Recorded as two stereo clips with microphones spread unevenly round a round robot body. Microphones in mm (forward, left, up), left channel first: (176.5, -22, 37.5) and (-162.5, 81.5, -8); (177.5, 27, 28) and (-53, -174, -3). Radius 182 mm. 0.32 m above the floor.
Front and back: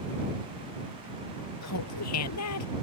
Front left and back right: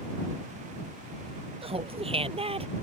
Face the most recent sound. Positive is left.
turn(degrees=-65)